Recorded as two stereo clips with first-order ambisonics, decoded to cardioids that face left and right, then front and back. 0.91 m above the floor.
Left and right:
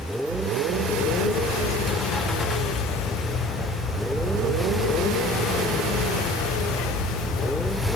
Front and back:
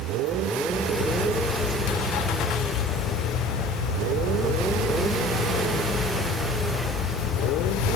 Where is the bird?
25° left, 4.5 m.